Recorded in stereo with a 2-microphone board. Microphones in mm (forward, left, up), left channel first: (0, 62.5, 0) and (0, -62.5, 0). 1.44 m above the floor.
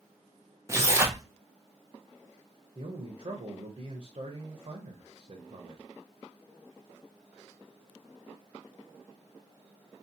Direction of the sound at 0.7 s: 25° right (ahead or behind).